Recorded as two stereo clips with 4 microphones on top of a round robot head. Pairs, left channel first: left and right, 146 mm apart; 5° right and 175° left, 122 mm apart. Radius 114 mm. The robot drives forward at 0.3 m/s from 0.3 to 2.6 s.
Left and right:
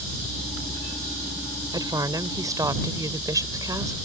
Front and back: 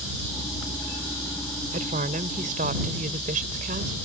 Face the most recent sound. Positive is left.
turn(degrees=-155)